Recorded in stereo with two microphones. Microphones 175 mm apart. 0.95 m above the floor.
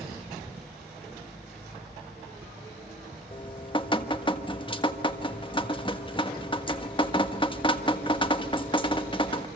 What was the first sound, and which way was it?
Dripping, 30° left (ahead or behind).